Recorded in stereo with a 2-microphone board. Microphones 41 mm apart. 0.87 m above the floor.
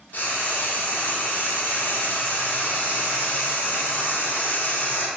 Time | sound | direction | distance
0.1 | frying | 45° left (ahead or behind) | 0.9 m